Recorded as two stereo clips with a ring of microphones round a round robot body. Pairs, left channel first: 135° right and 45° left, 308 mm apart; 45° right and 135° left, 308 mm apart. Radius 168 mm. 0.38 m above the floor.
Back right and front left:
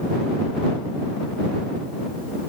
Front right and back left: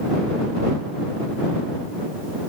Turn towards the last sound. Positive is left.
No sound to turn to.